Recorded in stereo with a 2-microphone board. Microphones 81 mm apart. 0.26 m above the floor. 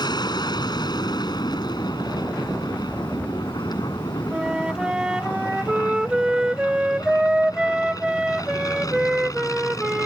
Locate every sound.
0.0 s an aircraft: 60° left (ahead or behind); by 10.1 s 45° left (ahead or behind)
4.3 s a flute: 10° right (ahead or behind)